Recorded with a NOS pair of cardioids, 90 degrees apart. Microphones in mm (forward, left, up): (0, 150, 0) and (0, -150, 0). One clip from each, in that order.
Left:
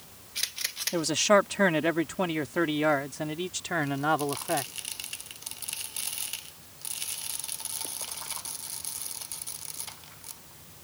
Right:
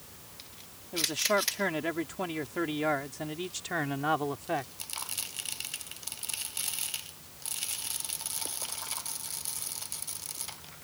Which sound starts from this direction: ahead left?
A man speaking, at 0.9 s.